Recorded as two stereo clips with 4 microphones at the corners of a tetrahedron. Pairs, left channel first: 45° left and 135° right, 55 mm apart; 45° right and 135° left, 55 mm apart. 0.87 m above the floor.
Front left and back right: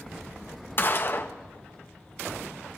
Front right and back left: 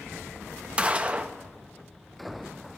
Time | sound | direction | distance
0.8 | a gunshot | 75° left | 0.7 m